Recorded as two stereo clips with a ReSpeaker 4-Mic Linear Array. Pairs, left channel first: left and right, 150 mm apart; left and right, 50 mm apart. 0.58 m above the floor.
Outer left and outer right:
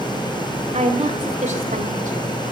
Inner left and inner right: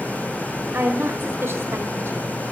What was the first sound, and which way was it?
A woman speaking, 55° right (ahead or behind).